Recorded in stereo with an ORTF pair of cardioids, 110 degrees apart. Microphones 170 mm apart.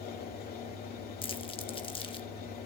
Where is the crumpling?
30° left, 1.0 m.